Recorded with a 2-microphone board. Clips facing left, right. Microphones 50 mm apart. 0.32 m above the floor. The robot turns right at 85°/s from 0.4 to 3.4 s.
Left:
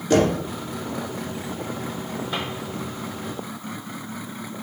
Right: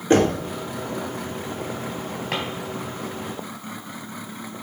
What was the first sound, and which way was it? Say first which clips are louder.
Knocking: right 1 dB; 35° right (ahead or behind).